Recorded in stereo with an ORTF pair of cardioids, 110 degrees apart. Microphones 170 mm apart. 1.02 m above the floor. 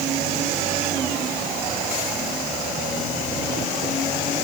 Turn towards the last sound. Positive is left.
No sound to turn to.